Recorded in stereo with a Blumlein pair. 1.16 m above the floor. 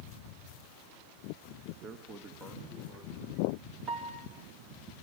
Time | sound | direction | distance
1.8 | a man speaking | 25° right | 1.1 m
3.9 | a piano | 30° right | 2.0 m